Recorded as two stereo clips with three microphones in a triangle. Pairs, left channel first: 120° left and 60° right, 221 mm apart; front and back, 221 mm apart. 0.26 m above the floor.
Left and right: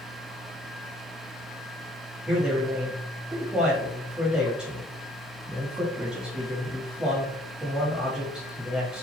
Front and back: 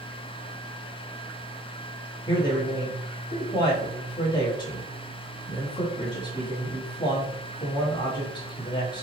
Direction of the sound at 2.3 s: 20° left.